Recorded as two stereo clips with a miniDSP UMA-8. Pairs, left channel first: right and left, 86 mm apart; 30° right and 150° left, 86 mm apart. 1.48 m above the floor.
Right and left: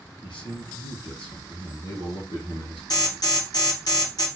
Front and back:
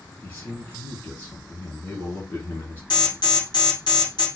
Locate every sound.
0.2 s a man speaking: 85° right, 2 m
2.9 s an alarm: 60° right, 1.8 m